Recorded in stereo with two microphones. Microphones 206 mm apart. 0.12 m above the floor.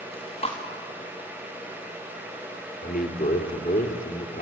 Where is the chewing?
30° left (ahead or behind), 4.5 m.